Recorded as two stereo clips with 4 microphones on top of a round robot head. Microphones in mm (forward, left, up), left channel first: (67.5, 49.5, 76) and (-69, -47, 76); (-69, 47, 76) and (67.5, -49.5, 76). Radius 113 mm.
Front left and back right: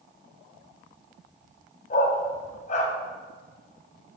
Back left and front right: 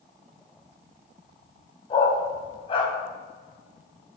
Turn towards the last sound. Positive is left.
turn(degrees=85)